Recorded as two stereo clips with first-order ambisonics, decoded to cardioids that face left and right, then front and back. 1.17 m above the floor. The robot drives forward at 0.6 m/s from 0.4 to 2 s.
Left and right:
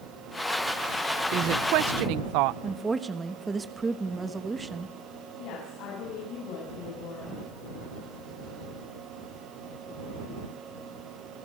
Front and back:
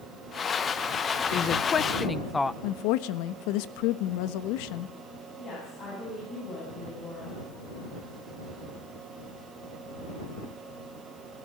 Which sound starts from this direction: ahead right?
A woman speaking, at 1.3 s.